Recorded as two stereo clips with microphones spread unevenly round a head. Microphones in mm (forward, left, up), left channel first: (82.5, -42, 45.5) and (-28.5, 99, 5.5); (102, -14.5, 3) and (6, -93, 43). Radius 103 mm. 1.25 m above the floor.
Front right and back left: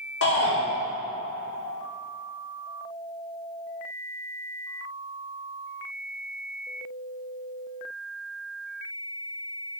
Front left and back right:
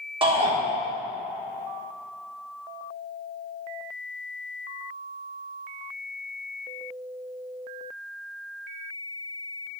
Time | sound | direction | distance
0.2 | a shout | 90° right | 3.5 m